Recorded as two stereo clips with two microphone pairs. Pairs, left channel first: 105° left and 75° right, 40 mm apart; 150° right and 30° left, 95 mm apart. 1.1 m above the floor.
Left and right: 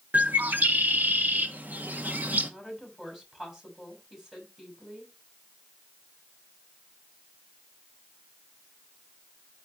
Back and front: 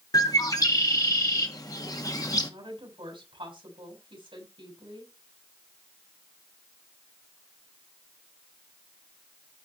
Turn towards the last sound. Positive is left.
turn(degrees=5)